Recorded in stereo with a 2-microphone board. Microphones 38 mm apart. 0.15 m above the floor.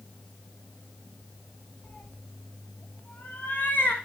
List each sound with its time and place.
1.8 s a cat meowing: 45° left (ahead or behind), 3.5 m; by 4.0 s 40° left (ahead or behind), 4.5 m